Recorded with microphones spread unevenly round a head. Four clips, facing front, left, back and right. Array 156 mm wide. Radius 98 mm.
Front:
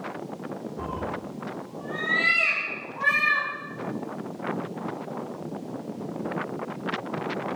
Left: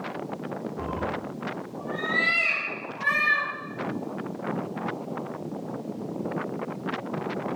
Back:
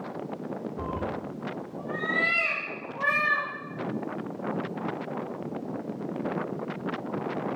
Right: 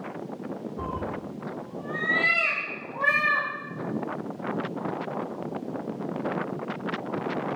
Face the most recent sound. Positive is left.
turn(degrees=-135)